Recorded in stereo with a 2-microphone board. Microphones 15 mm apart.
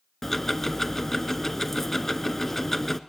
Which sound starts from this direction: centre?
Ticking, at 0.2 s.